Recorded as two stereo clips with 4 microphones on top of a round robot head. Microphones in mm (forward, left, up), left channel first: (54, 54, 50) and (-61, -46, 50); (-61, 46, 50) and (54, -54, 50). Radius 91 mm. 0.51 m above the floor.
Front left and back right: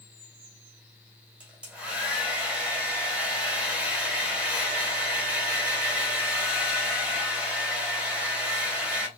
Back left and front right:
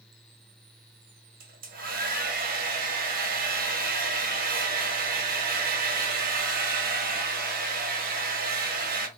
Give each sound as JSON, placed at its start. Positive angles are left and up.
{"t": 1.4, "sound": "a hair dryer", "azimuth_deg": -55, "distance_m": 1.2}